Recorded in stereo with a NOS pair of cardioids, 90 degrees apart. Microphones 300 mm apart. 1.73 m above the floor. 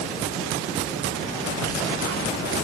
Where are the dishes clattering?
No dishes clattering in this recording.